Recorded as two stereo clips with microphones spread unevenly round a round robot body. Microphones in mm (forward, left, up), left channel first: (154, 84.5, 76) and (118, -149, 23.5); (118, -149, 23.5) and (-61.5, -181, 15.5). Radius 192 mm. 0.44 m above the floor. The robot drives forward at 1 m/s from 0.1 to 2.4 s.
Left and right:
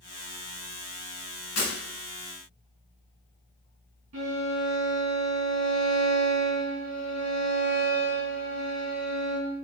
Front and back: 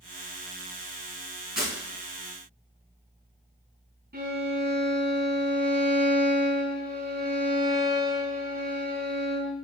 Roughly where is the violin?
Behind right.